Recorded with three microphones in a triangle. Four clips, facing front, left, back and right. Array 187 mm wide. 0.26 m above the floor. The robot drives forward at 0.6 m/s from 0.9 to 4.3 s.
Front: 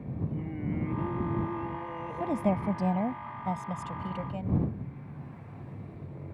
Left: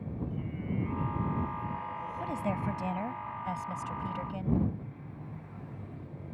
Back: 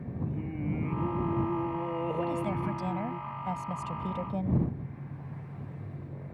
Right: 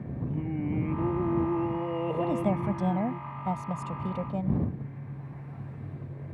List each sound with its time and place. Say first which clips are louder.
0.2 s singing: right 9 dB, even; 85° right; by 3.2 s 140° right
2.2 s a woman speaking: right 4 dB, front 2 dB; 30° right; by 4.6 s 110° right